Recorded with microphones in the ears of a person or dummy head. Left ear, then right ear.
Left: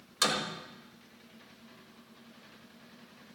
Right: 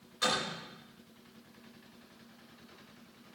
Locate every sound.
0.2 s a door slam: 70° left (ahead or behind), 5.5 m